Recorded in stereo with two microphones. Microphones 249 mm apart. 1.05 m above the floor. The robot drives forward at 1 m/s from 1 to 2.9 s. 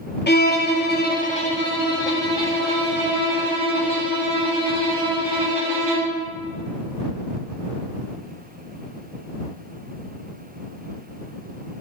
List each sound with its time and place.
0.3 s a violin: 45° left (ahead or behind), 0.6 m; by 6.1 s 10° left (ahead or behind), 2.5 m